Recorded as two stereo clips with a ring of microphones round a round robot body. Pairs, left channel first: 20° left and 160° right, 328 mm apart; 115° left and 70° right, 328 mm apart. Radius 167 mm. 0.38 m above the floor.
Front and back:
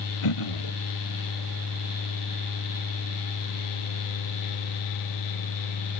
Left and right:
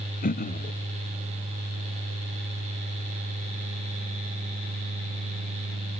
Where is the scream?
I don't hear a scream.